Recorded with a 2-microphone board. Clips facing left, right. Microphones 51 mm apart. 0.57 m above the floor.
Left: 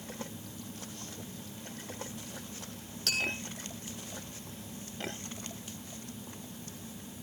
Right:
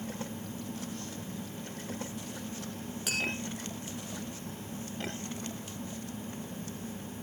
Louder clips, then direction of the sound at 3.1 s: Left 1 dB; 10° right (ahead or behind).